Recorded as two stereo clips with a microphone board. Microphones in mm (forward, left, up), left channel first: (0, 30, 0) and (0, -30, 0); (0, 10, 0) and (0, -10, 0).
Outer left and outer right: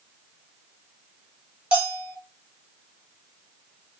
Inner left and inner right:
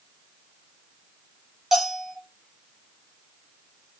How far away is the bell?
About 1.5 m.